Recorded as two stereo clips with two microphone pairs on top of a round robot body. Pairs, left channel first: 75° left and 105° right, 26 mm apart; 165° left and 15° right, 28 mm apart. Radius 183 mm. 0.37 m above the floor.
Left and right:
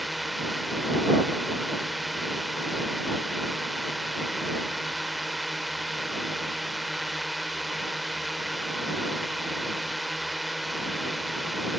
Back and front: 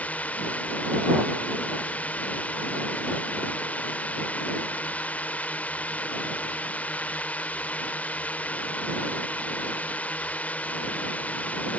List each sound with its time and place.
0.0 s a drone: 165° left